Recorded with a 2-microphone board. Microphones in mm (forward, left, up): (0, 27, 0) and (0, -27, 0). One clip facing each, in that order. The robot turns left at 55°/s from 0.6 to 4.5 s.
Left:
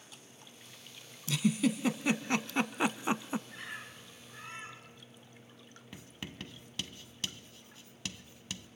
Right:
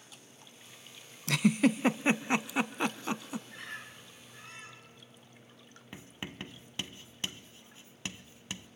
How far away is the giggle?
About 0.5 m.